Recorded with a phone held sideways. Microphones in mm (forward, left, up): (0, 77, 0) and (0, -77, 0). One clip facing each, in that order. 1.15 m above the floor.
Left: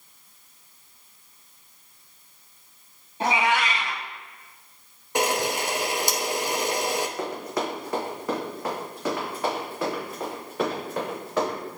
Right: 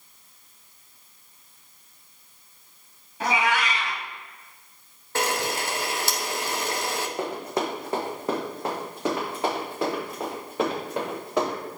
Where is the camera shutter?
15° left (ahead or behind), 0.6 m.